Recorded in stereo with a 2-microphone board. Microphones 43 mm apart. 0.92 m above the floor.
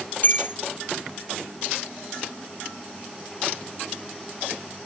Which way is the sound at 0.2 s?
45° left (ahead or behind).